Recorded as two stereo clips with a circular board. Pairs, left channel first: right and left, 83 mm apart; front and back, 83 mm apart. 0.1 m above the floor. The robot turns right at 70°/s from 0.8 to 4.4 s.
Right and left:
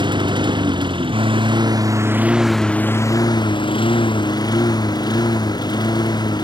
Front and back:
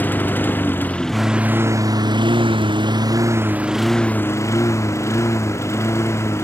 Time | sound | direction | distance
0.0 | a lawn mower | 70° left | ?